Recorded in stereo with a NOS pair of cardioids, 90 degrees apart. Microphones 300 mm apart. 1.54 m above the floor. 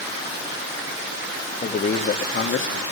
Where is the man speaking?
25° left, 3 m; by 2.8 s 45° left, 3 m.